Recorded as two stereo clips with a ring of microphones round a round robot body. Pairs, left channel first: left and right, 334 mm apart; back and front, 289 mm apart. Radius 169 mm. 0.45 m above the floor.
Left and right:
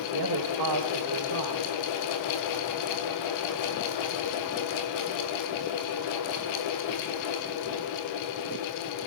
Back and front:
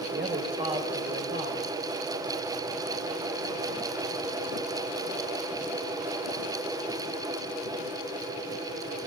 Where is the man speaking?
65° right, 2.5 m.